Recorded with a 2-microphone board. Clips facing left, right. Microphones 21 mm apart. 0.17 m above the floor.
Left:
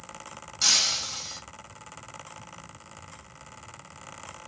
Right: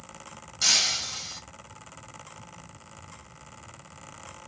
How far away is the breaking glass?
About 1.9 m.